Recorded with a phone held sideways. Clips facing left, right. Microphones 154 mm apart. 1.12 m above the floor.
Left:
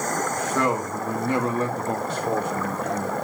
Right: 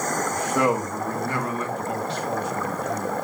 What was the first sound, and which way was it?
A man speaking, 20° right (ahead or behind).